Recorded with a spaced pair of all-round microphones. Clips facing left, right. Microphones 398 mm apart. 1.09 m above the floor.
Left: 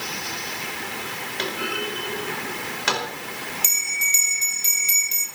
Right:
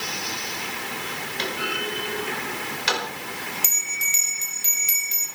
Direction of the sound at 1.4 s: 65° left (ahead or behind).